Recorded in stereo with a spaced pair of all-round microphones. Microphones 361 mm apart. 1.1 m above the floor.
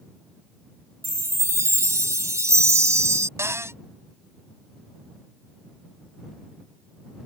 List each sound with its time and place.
1.0 s a chime: 10° right (ahead or behind)
3.4 s a cupboard door: 5° right (ahead or behind)